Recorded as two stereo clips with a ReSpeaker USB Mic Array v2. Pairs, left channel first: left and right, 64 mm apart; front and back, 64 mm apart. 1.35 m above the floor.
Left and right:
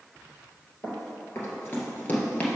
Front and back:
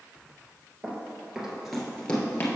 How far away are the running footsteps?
About 2.0 m.